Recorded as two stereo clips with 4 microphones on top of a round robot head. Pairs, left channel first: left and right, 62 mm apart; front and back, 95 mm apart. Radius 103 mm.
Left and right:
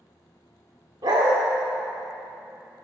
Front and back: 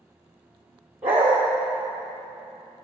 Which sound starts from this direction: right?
A dog barking, at 1.0 s.